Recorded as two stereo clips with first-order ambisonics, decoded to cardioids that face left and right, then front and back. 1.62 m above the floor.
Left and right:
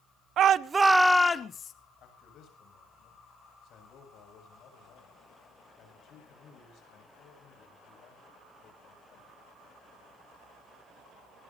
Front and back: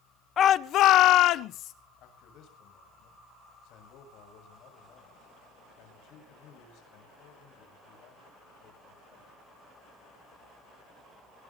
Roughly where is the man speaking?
Ahead left.